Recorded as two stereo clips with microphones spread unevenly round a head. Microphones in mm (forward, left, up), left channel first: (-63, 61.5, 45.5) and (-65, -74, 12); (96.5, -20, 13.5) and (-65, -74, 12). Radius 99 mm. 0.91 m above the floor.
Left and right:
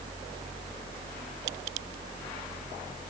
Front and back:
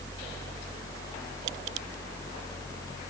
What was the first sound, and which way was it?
Only background noise.